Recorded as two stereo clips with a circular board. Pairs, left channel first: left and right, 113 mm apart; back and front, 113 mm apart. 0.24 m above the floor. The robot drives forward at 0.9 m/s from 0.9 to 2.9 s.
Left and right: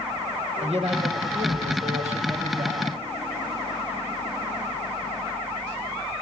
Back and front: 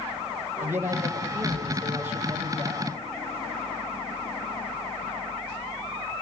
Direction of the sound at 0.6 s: 70° right.